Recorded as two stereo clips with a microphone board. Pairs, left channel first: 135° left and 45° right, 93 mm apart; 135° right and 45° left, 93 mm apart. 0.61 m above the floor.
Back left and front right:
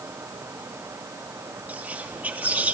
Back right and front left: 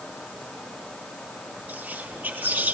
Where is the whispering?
Straight ahead, 0.6 m.